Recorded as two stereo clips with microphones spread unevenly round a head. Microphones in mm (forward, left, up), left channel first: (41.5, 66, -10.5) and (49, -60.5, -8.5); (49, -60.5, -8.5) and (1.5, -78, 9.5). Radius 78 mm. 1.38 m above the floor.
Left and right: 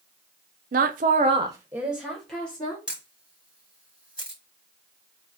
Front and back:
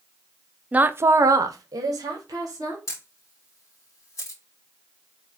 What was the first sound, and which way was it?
A woman speaking, 85° right.